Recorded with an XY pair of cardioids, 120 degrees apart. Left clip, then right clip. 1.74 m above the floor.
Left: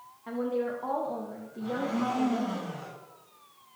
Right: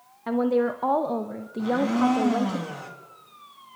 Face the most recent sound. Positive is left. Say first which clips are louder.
# right 8 dB
turn(degrees=-65)